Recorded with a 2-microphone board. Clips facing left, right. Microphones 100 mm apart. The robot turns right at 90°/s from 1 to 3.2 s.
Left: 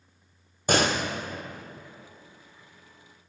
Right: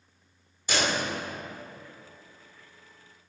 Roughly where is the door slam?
Left.